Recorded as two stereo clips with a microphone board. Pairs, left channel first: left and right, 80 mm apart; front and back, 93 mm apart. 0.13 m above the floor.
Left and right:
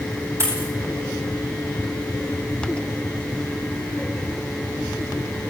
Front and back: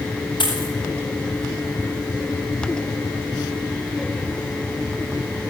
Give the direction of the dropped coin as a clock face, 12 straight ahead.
1 o'clock.